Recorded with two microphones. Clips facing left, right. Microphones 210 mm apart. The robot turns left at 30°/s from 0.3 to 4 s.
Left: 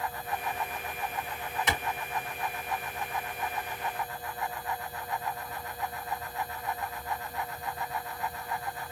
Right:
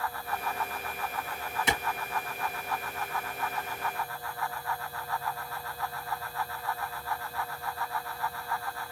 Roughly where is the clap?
Right.